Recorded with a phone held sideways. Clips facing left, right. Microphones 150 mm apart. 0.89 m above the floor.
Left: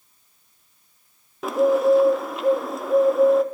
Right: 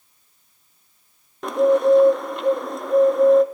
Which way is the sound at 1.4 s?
5° left (ahead or behind).